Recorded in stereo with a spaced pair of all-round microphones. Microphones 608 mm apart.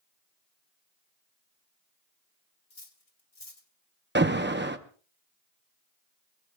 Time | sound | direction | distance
2.7 | cutlery clinking | 65° left (ahead or behind) | 1.9 m
4.2 | an alarm | 20° right (ahead or behind) | 0.8 m